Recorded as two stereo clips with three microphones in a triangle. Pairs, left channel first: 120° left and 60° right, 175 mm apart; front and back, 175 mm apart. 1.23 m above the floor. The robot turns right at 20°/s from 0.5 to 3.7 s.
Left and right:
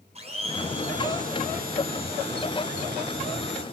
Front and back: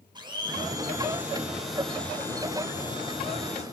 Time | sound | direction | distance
0.1 | a blender | 115° right | 5 m